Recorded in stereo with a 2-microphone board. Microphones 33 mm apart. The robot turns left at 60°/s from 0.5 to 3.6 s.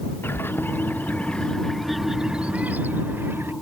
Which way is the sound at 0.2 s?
80° left.